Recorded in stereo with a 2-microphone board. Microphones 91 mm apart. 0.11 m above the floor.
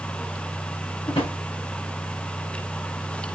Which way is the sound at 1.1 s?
75° left (ahead or behind).